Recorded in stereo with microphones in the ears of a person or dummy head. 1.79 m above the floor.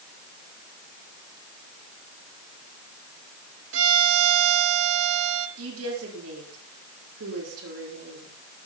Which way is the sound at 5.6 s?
85° right.